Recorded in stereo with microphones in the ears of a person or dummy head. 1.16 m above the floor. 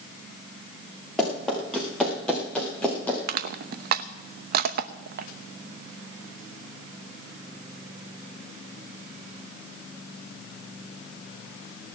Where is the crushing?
50° right (ahead or behind), 0.7 m.